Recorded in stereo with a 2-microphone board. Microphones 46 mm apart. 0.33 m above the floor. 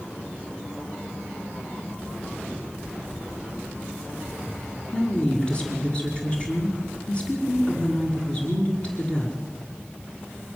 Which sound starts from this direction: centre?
A woman speaking, at 4.9 s.